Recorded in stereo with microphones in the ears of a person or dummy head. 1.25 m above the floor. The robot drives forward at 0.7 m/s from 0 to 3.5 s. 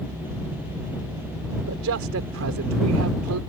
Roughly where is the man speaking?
Right.